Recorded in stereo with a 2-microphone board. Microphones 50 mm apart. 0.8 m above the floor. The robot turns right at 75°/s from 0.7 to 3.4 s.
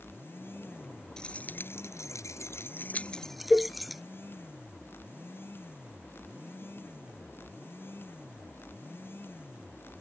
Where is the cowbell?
Centre (ahead or behind).